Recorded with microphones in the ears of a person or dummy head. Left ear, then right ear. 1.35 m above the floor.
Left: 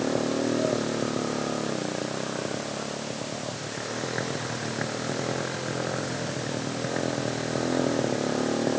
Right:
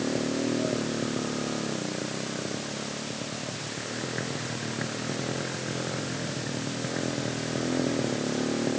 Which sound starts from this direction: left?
A motorcycle, at 0.0 s.